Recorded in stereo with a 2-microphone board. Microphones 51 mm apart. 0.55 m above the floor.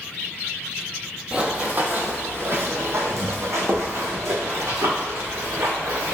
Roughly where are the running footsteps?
Right.